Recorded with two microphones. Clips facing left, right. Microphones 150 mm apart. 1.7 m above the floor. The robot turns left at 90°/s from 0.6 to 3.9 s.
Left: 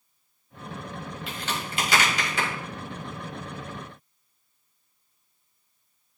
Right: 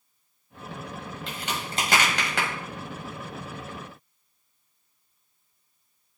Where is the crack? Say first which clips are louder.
Even; 5° left (ahead or behind), 2.5 m; by 2.5 s 70° right (ahead or behind), 2.5 m.